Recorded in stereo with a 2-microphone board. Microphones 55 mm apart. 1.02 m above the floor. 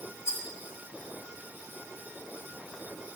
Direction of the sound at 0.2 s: 60° left (ahead or behind).